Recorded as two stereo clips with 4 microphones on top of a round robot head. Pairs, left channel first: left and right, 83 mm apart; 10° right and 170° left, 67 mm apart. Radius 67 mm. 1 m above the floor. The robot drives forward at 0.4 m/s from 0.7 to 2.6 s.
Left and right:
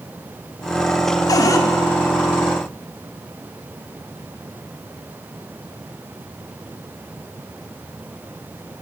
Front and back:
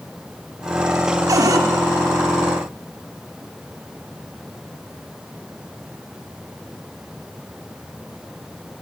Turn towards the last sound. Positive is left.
turn(degrees=150)